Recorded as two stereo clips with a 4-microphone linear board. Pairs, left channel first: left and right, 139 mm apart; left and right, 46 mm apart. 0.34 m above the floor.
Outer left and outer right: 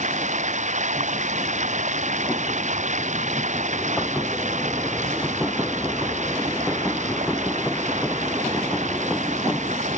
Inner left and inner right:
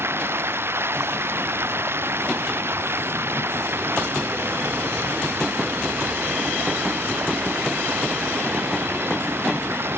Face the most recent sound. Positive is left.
turn(degrees=-60)  # may be behind; listen again after turning